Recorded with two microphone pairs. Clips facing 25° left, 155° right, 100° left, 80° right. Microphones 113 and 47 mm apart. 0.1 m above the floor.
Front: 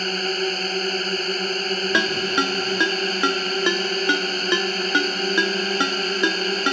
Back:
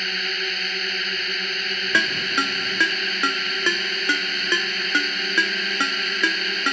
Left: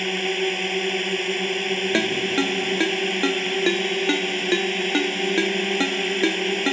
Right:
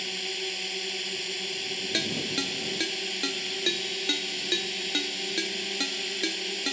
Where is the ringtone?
85° left.